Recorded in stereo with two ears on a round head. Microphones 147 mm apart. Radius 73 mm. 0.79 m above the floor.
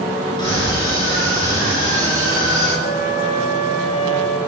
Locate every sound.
0.4 s a scream: 25° left (ahead or behind), 9.5 m
2.8 s a flute: 40° left (ahead or behind), 5 m